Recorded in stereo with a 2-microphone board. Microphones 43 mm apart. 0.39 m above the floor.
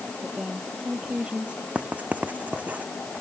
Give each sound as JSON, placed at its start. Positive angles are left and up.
{"t": 0.2, "sound": "a woman speaking", "side_deg": -25}
{"t": 1.8, "sound": "writing", "side_deg": -35}